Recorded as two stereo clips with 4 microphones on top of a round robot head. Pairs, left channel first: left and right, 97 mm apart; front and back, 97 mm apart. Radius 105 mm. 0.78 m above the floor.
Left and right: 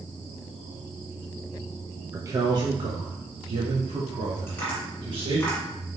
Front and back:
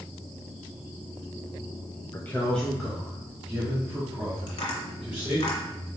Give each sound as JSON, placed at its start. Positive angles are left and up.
{"t": 2.1, "sound": "a man speaking", "azimuth_deg": -45, "distance_m": 0.6}
{"t": 4.5, "sound": "tapping", "azimuth_deg": 15, "distance_m": 1.5}